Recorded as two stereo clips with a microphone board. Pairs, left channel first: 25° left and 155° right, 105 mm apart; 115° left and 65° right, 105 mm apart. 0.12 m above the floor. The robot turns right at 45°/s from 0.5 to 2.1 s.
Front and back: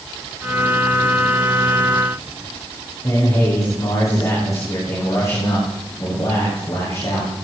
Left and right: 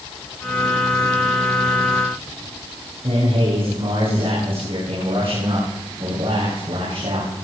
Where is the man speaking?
35° right, 7.5 m.